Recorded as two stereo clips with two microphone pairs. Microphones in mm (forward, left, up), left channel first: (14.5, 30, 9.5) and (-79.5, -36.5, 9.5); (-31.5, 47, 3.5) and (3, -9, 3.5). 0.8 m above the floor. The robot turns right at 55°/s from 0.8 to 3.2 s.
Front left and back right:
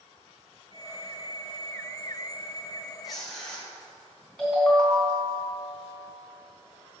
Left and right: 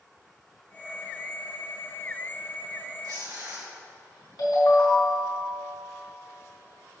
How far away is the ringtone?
About 4 m.